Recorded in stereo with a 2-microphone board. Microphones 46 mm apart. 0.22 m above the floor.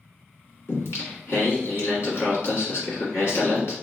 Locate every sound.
0.7 s singing: 60° left (ahead or behind), 1.6 m